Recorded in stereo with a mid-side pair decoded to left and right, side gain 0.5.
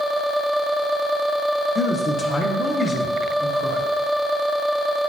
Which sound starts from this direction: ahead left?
A man speaking, at 1.8 s.